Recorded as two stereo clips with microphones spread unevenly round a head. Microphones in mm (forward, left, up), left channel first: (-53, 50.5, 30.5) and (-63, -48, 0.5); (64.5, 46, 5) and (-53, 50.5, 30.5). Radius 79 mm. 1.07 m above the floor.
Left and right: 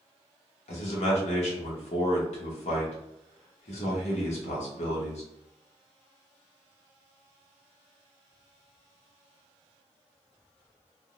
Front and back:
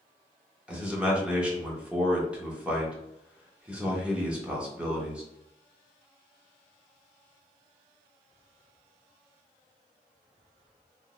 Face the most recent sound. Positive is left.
turn(degrees=95)